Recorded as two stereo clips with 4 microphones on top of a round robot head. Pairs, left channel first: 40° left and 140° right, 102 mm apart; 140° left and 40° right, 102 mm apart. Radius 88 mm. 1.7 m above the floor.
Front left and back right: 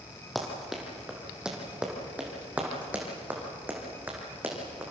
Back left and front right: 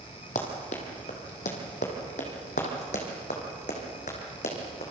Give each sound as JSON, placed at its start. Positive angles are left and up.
{"t": 0.3, "sound": "running footsteps", "azimuth_deg": 130, "distance_m": 2.5}